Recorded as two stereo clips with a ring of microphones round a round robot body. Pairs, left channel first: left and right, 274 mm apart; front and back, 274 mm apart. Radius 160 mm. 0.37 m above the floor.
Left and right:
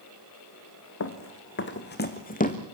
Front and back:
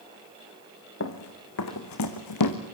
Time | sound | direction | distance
1.0 | running footsteps | 50° left | 2.5 m